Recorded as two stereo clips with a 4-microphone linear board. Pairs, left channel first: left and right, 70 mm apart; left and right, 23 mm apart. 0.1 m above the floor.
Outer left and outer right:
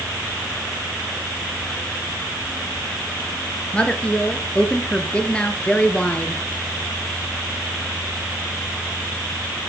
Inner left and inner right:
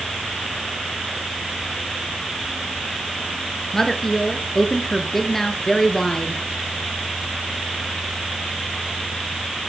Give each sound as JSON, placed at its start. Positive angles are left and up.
{"t": 3.7, "sound": "a woman speaking", "side_deg": 15, "distance_m": 2.0}